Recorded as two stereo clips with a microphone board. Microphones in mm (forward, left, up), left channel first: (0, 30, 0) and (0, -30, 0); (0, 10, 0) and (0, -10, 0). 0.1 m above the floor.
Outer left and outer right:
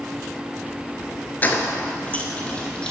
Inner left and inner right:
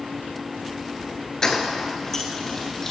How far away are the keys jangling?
About 0.9 m.